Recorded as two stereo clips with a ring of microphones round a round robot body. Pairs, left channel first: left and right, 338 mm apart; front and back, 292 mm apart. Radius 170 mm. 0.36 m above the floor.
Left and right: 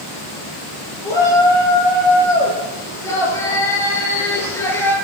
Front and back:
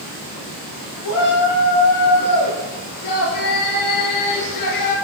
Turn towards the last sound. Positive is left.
turn(degrees=5)